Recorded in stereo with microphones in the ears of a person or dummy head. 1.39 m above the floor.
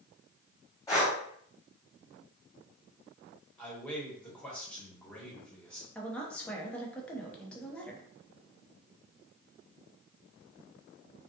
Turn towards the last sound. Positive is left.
turn(degrees=10)  # may be behind; listen again after turning